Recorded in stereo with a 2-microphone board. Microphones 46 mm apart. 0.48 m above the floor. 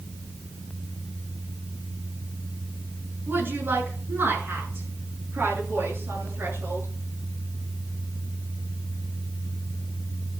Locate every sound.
3.3 s a woman speaking: 50° right (ahead or behind), 6.5 m; by 6.9 s 55° right (ahead or behind), 9 m